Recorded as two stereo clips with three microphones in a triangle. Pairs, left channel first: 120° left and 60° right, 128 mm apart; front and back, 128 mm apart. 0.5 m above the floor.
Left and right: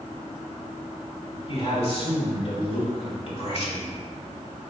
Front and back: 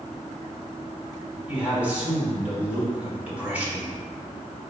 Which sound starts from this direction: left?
A man speaking, at 1.5 s.